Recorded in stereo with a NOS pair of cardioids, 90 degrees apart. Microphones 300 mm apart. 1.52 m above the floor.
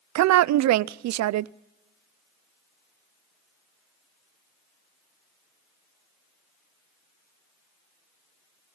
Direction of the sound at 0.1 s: 65° right.